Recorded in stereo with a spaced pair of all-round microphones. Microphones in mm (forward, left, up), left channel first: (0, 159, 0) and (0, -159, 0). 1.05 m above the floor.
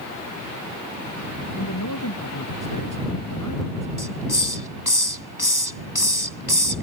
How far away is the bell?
I don't hear a bell.